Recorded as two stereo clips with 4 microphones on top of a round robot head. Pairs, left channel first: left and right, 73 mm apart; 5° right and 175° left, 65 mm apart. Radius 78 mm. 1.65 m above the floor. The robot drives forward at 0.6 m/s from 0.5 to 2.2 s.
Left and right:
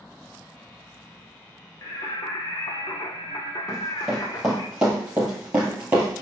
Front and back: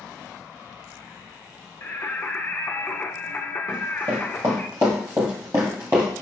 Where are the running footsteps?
170° right, 2.5 m; by 6.2 s 125° right, 1.7 m.